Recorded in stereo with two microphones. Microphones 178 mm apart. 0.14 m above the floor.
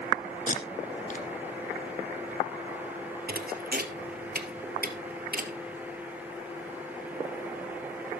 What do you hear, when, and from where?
0.5 s tape being pulled: 45° left (ahead or behind), 1.8 m
3.3 s a thud: 60° right (ahead or behind), 1.3 m